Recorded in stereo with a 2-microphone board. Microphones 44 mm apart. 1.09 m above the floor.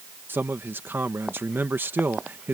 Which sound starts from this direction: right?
A man speaking, at 0.3 s.